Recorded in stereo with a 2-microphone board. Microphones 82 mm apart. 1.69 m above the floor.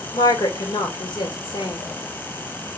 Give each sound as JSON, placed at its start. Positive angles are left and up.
{"t": 0.1, "sound": "a woman speaking", "side_deg": 60, "distance_m": 1.8}